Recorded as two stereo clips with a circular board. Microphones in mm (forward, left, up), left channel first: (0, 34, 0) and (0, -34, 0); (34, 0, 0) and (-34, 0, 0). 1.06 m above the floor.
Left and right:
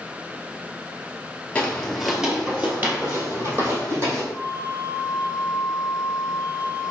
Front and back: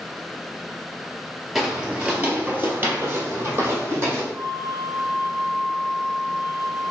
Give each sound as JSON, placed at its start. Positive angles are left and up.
{"t": 1.6, "sound": "footsteps", "azimuth_deg": 110, "distance_m": 1.0}
{"t": 4.3, "sound": "a flute", "azimuth_deg": -60, "distance_m": 1.2}